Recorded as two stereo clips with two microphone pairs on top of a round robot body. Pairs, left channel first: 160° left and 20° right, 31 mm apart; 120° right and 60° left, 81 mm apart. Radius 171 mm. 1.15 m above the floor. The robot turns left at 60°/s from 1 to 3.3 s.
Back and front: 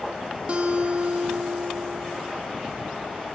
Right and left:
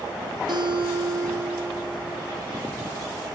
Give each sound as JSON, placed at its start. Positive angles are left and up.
{"t": 0.5, "sound": "a guitar", "azimuth_deg": 30, "distance_m": 3.0}